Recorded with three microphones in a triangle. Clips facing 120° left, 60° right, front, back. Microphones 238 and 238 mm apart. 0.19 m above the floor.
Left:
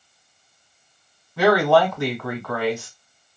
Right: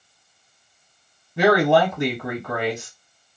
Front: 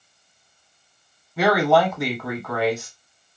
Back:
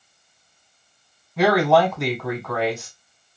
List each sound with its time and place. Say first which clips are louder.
1.4 s a woman speaking: even, back 1 dB; 85° right, 1.1 m